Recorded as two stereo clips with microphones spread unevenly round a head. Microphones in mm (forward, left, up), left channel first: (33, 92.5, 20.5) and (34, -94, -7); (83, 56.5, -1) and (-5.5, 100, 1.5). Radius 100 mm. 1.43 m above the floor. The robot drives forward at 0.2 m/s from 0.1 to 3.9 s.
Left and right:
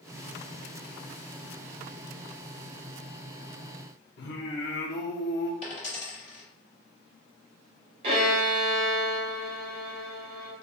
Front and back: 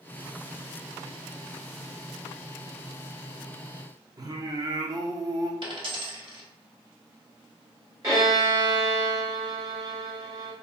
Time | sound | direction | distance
4.2 | singing | 110° left | 0.7 m
5.6 | a dropped coin | 140° left | 1.9 m
8.0 | a violin | 150° right | 1.4 m